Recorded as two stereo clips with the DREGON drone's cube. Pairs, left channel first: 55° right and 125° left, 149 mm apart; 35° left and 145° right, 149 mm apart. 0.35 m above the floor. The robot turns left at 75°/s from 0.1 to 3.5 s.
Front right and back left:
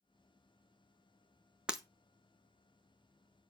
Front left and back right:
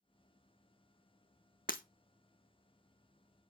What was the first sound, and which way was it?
Breaking glass, 40° left.